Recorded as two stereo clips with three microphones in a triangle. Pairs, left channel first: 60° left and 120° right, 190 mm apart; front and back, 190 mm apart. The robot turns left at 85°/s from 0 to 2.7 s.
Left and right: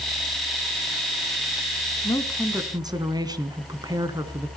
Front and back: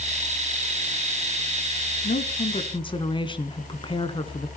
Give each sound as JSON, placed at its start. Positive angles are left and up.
{"t": 2.0, "sound": "a woman speaking", "azimuth_deg": 0, "distance_m": 1.8}